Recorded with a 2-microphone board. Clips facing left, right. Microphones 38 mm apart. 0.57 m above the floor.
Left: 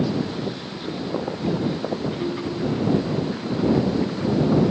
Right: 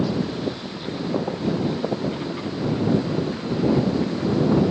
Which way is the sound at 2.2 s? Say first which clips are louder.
Left 1 dB; 55° left (ahead or behind).